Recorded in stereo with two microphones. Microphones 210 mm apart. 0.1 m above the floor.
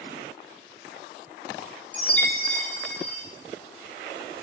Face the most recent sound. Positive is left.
turn(degrees=5)  # may be behind; listen again after turning